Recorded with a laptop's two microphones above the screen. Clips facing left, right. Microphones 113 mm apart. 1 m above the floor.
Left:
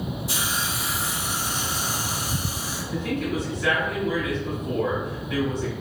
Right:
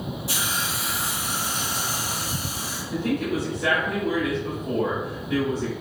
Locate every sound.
0.3 s a hiss: 65° right (ahead or behind), 2 m
2.9 s a man speaking: 50° right (ahead or behind), 1.9 m